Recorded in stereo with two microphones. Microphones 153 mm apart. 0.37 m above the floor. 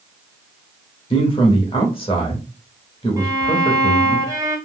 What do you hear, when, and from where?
1.1 s a man speaking: 35° left (ahead or behind), 0.9 m
3.2 s a violin: 25° right (ahead or behind), 0.7 m